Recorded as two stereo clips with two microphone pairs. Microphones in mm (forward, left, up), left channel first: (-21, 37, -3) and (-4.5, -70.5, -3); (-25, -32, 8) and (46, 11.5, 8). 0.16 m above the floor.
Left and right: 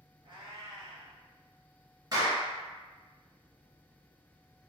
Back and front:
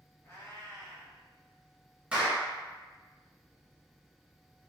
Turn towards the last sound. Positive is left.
turn(degrees=-40)